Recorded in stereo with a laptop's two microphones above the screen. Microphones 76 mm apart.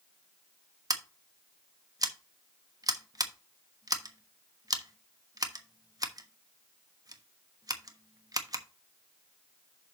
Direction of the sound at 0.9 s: 55° right (ahead or behind).